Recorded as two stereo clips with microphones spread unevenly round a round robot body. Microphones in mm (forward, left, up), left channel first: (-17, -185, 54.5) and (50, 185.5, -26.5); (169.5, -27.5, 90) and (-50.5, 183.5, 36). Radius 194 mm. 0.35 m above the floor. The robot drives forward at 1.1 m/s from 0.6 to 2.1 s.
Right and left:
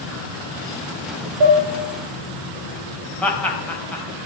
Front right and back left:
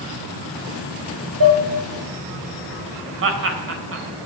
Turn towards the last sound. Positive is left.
turn(degrees=165)